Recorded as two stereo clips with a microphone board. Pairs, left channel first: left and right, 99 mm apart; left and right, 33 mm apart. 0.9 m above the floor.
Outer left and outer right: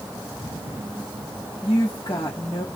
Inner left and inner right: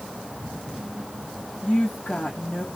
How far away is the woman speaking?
About 1.5 m.